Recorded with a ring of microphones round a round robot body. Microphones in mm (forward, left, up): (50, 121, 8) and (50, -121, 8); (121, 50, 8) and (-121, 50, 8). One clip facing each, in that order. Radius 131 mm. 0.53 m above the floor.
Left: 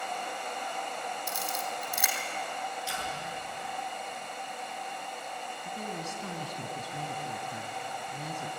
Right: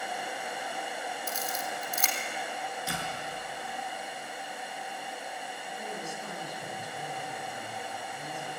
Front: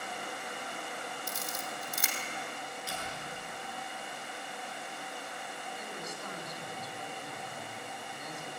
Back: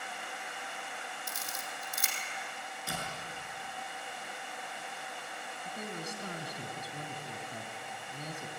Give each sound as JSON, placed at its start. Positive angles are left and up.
{"t": 1.3, "sound": "a camera shutter", "azimuth_deg": 10, "distance_m": 4.5}
{"t": 2.9, "sound": "a door slam", "azimuth_deg": -135, "distance_m": 7.0}
{"t": 5.7, "sound": "a woman speaking", "azimuth_deg": 125, "distance_m": 4.0}